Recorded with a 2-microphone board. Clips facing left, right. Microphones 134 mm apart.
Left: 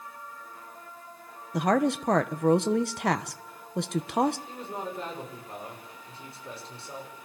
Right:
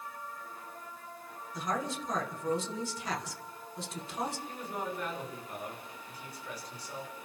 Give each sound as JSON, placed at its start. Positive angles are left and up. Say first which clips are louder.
{"t": 1.5, "sound": "a woman speaking", "louder": "left 11 dB", "side_deg": 75, "distance_m": 1.3}
{"t": 4.5, "sound": "a man speaking", "louder": "left 2 dB", "side_deg": 30, "distance_m": 6.5}